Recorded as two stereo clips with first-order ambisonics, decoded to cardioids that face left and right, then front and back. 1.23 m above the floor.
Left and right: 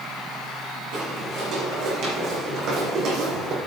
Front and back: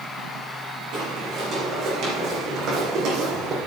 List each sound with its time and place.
0.9 s footsteps: 130° right, 4 m; by 3.6 s 135° right, 2 m